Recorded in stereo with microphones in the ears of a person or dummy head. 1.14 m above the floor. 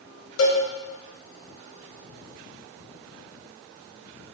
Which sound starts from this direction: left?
A cowbell, at 0.4 s.